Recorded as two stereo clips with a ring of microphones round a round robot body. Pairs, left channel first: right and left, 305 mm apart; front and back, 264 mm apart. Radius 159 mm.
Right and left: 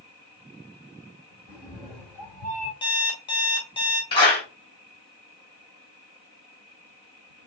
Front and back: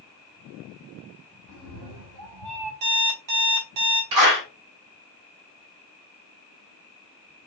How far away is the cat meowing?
About 2 m.